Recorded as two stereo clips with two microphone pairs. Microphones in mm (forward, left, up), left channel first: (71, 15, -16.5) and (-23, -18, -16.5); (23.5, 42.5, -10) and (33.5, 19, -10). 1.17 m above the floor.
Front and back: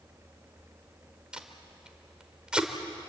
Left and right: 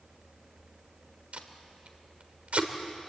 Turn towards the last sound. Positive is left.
turn(degrees=-80)